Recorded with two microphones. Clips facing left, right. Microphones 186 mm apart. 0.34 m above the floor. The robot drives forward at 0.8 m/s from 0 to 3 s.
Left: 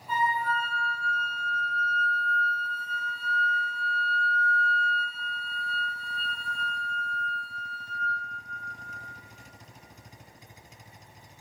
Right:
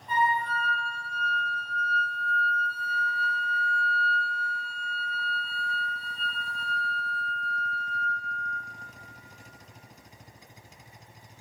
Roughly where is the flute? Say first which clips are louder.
Right 1 dB; centre.